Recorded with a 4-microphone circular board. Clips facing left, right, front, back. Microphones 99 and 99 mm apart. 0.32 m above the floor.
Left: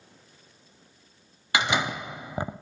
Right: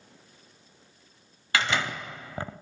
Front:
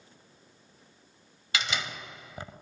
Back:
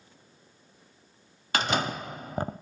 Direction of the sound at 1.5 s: 155° left.